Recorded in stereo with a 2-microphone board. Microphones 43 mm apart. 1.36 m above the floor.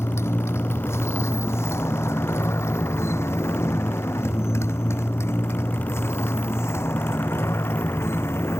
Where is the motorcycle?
85° left; by 8.6 s 75° left (ahead or behind).